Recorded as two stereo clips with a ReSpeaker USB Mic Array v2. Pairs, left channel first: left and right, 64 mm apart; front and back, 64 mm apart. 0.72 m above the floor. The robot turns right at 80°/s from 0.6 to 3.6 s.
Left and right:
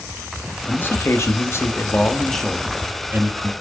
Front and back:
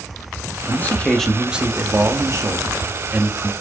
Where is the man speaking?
35° left, 1.2 m; by 3.5 s 95° right, 1.2 m.